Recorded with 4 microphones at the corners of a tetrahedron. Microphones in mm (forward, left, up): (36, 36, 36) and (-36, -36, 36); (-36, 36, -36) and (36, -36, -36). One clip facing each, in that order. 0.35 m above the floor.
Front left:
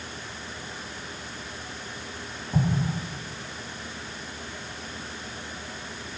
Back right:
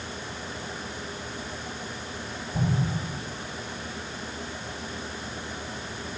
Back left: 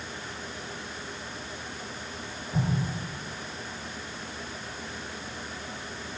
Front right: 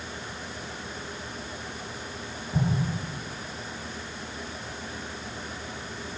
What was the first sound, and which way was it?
An explosion, 40° left.